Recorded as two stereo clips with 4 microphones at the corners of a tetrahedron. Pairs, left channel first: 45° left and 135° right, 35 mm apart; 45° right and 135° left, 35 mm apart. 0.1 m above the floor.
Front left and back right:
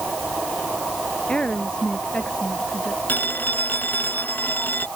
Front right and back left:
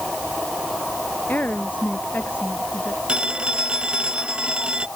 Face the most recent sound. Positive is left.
turn(degrees=75)